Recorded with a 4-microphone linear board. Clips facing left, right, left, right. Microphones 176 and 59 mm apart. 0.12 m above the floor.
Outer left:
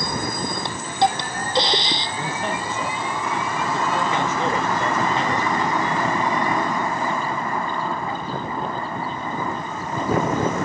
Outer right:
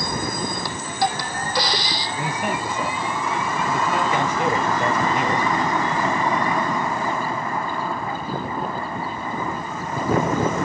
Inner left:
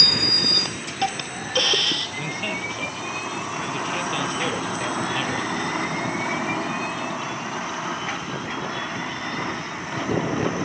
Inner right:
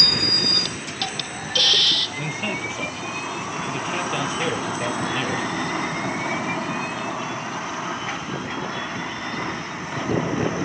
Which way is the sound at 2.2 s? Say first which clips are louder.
Outer right 4 dB, inner right 1 dB; 15° right (ahead or behind).